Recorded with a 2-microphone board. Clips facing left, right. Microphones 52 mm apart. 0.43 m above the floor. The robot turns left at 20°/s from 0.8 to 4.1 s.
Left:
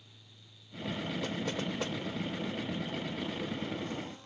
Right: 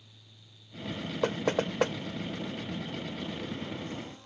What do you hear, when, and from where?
1.2 s knocking: 50° right (ahead or behind)